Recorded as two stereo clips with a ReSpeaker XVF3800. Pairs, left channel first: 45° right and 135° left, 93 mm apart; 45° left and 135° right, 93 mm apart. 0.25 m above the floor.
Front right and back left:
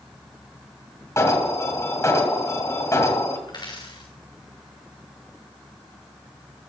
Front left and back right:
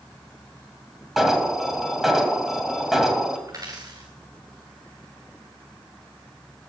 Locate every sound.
1.2 s an alarm: 50° right, 2.5 m
3.5 s a dropped coin: 85° right, 3.5 m